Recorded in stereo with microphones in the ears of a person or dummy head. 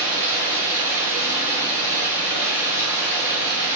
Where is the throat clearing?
No throat clearing in this recording.